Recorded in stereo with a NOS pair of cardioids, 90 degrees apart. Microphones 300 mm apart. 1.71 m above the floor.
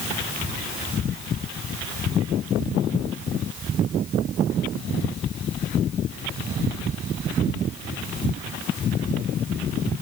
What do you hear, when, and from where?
Only background noise.